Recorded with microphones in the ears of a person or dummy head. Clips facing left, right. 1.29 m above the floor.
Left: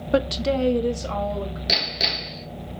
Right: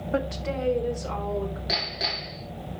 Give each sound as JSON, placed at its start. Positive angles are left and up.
{"t": 0.1, "sound": "a woman speaking", "side_deg": 50, "distance_m": 0.5}
{"t": 1.7, "sound": "hammering", "side_deg": 40, "distance_m": 1.6}